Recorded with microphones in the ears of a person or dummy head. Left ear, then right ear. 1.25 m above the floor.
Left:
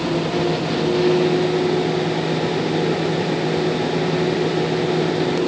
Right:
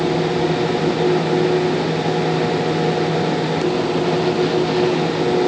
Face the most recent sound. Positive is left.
No sound to turn to.